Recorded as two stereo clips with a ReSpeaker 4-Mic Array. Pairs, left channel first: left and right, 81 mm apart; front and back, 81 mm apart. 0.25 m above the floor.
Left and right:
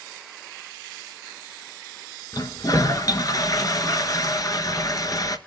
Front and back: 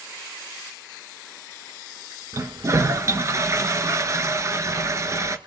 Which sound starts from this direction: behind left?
A toilet flushing, at 2.3 s.